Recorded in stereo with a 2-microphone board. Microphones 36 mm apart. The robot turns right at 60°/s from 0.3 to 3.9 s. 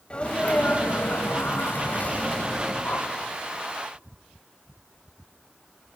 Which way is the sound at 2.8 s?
45° left (ahead or behind).